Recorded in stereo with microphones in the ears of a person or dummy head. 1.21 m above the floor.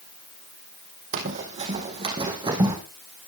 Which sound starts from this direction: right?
Running footsteps, at 1.1 s.